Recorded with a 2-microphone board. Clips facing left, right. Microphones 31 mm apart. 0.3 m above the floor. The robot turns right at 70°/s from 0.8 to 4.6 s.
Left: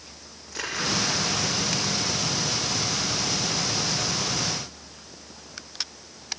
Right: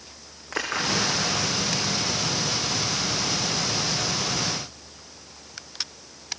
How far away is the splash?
About 6.5 m.